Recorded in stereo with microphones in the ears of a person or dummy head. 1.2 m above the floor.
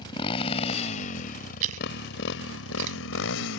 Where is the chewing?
45° right (ahead or behind).